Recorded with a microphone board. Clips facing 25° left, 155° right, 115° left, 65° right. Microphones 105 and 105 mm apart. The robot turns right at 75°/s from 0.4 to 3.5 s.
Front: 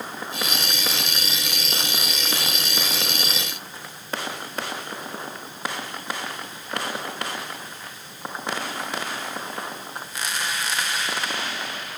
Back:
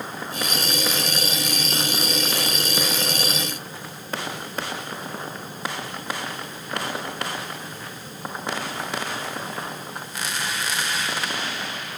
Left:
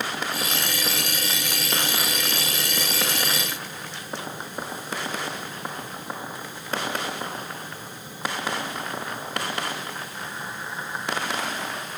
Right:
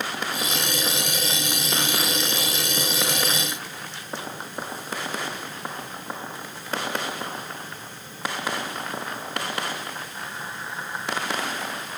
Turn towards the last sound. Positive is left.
No sound to turn to.